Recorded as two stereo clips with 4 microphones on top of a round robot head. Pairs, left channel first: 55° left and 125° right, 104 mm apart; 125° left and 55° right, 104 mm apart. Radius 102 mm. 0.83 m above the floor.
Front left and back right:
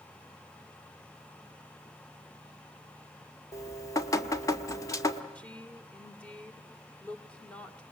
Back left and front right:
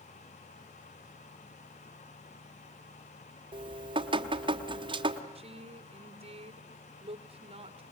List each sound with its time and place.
3.5 s dripping: 10° right, 1.4 m
5.3 s a woman speaking: 25° right, 1.9 m